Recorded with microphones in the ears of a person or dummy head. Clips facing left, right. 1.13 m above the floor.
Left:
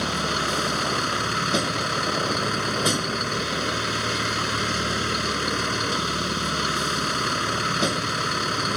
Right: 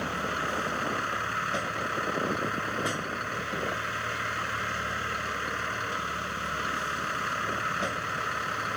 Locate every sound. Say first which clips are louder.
0.0 s a vehicle: left 6 dB; 60° left (ahead or behind)